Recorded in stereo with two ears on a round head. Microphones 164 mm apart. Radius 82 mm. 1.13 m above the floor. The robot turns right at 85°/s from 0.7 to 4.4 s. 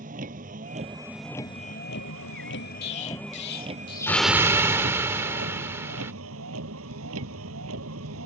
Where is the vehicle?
45° right; by 8.3 s 90° right.